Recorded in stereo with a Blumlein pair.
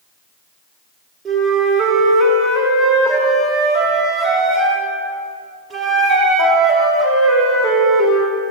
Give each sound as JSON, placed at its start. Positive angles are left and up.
{"t": 1.2, "sound": "a flute", "azimuth_deg": -15, "distance_m": 2.0}